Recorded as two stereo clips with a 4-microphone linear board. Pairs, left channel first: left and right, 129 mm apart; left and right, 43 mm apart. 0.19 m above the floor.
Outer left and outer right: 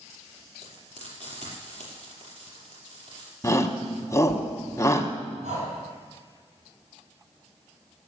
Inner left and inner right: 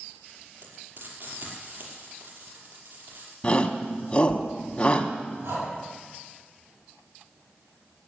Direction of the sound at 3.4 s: 25° left (ahead or behind).